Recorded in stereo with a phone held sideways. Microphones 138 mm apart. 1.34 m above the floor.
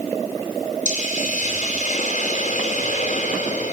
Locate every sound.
0.8 s a hiss: 65° left (ahead or behind), 2.5 m